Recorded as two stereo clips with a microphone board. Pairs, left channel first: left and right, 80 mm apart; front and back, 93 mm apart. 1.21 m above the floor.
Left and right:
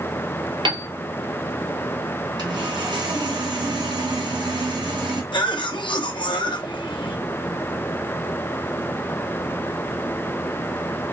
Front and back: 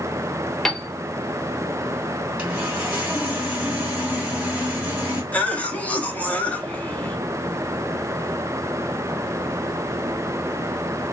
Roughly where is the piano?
Right.